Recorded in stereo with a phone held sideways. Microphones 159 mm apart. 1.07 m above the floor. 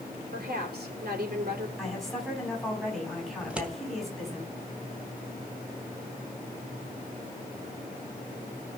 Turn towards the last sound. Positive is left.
turn(degrees=-5)  # may be behind; listen again after turning